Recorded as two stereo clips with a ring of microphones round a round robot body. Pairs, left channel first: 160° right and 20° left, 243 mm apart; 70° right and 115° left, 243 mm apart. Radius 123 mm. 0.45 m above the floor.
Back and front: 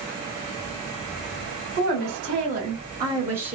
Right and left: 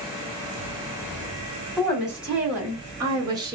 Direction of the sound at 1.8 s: 25° left.